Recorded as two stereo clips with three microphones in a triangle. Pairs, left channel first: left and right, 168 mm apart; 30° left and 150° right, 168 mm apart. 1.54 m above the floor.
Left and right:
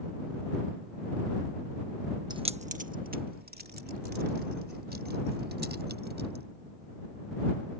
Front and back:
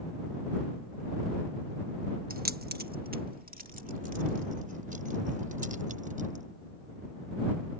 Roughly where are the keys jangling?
Behind right.